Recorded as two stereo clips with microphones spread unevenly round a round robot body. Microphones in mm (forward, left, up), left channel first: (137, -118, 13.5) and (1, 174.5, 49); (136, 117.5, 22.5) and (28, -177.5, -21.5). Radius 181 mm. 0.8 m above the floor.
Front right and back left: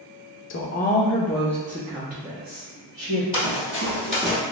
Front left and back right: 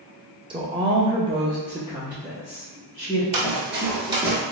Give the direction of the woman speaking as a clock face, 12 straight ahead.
2 o'clock.